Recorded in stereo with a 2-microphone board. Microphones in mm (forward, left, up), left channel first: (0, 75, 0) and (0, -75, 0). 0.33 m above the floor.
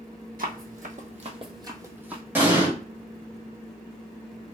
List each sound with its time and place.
0.4 s running footsteps: 70° right (ahead or behind), 0.8 m; by 2.2 s 10° right (ahead or behind), 0.8 m
2.4 s an explosion: 15° right (ahead or behind), 1.1 m